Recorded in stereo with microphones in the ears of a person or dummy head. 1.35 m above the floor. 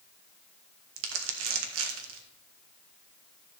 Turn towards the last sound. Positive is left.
turn(degrees=-75)  # may be behind; listen again after turning